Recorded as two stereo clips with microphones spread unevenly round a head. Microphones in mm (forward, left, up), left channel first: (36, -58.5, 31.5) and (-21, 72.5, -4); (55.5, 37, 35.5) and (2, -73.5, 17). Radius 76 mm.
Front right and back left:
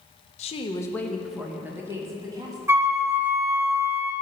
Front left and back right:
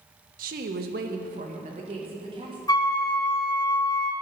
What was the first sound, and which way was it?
A woman speaking, 105° right.